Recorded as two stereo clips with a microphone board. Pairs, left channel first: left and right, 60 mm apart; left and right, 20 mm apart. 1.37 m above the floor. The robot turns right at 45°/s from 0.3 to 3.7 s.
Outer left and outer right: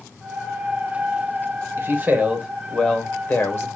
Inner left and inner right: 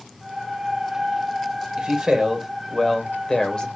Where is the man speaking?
35° right, 1.0 m; by 3.7 s 50° left, 1.0 m.